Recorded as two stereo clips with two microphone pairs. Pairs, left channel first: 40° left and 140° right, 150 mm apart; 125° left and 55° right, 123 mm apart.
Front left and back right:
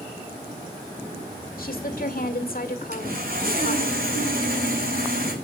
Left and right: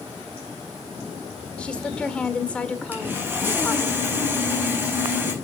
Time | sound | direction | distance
1.6 | a woman speaking | 45° left | 1.9 m
2.9 | sawing | 130° right | 4.5 m